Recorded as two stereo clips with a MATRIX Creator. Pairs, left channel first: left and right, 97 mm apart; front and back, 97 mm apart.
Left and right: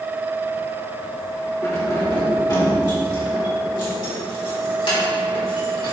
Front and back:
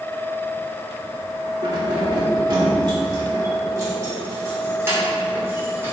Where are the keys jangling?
145° left, 2.5 m; by 5.9 s 110° left, 4.5 m.